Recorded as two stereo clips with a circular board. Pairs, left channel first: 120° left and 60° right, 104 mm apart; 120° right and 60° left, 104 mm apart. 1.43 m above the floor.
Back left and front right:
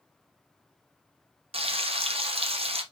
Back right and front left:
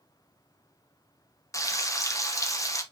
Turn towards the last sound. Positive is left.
turn(degrees=-65)